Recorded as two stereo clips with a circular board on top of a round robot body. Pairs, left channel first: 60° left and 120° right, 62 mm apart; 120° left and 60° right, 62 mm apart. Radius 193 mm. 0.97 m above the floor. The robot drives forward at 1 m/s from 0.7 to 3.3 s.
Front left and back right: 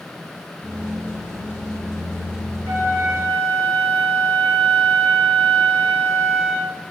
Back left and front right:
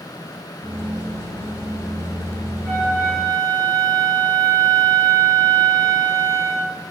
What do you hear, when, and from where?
2.6 s a flute: 155° right, 2.5 m; by 6.8 s 160° right, 3 m